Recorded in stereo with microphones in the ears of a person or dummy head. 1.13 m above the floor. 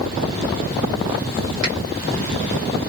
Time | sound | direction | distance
1.6 | a finger snap | 20° right (ahead or behind) | 1.9 m